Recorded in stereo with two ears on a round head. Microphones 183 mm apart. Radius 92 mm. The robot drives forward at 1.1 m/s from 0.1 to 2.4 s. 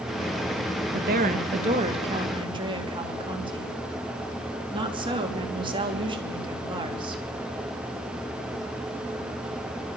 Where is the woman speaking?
50° right (ahead or behind), 1.5 m; by 7.2 s 25° right (ahead or behind), 3 m.